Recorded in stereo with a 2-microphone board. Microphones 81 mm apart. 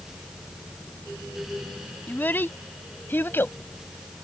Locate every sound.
2.1 s a child speaking: 25° left (ahead or behind); by 3.6 s 30° left (ahead or behind)